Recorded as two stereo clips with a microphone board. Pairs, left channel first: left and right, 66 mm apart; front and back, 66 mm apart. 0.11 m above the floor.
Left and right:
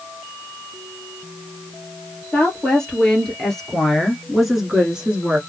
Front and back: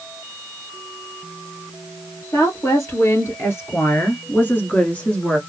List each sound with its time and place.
2.3 s a woman speaking: 15° left, 2 m; by 5.4 s 55° right, 1.3 m